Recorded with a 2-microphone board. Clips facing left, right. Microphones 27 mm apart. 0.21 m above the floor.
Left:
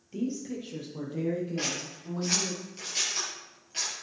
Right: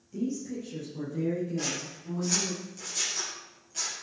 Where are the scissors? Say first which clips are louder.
Left 1 dB; 50° left (ahead or behind), 5 m.